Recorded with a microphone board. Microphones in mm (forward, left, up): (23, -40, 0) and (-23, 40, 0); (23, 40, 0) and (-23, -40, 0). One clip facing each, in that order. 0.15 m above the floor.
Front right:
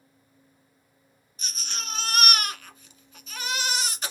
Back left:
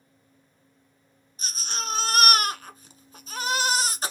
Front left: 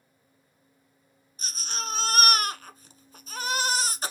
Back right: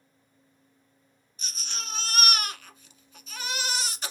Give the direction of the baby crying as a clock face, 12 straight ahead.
9 o'clock.